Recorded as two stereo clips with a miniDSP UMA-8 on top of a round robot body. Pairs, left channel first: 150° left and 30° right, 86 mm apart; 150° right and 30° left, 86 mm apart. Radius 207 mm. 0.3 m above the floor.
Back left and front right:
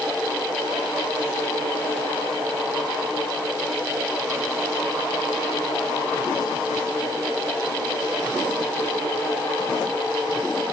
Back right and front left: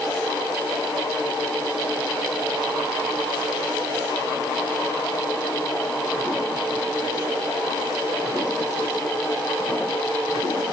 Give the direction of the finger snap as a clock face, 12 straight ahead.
No finger snap in this recording.